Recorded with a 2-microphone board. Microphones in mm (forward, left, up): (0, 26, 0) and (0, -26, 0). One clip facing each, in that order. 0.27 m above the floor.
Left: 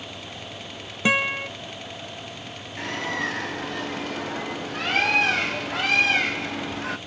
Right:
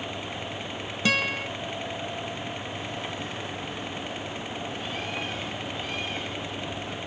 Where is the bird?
80° left.